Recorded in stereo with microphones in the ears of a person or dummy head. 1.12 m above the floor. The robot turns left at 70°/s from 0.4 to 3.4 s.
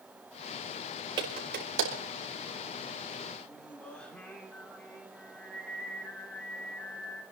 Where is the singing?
Centre (ahead or behind), 2.5 m.